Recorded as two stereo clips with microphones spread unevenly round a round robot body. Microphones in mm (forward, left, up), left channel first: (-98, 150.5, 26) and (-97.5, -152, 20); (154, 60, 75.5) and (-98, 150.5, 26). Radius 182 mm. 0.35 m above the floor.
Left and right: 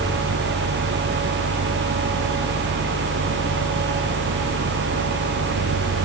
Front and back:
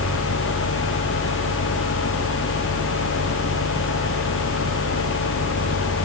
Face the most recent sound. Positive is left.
No sound to turn to.